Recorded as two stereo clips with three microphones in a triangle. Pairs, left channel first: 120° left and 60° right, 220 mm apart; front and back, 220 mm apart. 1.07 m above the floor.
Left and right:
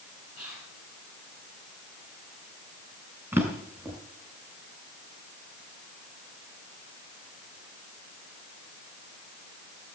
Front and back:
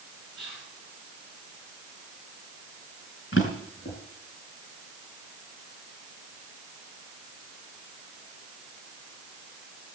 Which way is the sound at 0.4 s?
25° left.